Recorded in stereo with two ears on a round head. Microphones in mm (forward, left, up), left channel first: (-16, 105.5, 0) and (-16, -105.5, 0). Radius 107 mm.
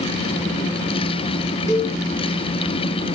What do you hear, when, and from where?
1.7 s a cowbell: 30° left (ahead or behind), 1.5 m